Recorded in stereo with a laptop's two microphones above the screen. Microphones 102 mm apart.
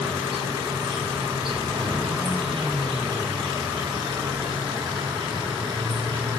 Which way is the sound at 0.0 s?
65° right (ahead or behind).